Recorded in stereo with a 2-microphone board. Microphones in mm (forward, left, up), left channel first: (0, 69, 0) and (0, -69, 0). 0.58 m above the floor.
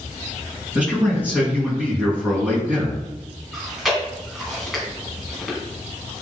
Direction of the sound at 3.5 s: Centre (ahead or behind).